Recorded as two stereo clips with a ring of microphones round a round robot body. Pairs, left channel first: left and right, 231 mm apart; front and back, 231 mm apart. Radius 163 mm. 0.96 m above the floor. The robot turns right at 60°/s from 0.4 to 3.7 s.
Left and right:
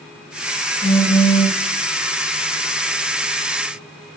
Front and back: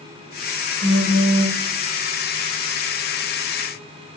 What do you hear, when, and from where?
0.8 s a phone buzzing: 175° right, 1.4 m; by 1.6 s 130° right, 1.4 m